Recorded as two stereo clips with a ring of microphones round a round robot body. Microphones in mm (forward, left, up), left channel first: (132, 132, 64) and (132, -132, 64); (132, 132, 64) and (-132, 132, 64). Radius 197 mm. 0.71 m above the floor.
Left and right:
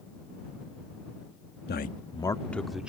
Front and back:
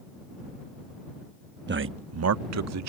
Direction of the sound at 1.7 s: 135° left.